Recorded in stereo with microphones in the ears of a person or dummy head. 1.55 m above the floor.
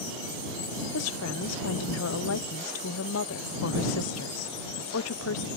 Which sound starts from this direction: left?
A woman speaking, at 0.9 s.